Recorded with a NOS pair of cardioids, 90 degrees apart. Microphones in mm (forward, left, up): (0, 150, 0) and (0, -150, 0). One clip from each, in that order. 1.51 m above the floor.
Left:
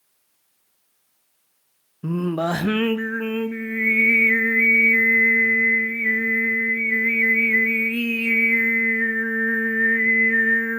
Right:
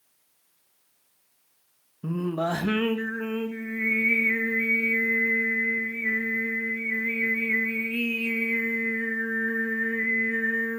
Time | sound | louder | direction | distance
2.0 | singing | left 4 dB | 25° left | 1.3 m